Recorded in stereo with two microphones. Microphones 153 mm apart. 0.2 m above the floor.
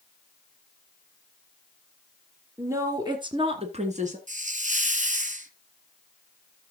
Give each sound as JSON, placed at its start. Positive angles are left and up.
{"t": 2.6, "sound": "a woman speaking", "side_deg": -20, "distance_m": 3.0}
{"t": 4.3, "sound": "a hiss", "side_deg": -55, "distance_m": 1.0}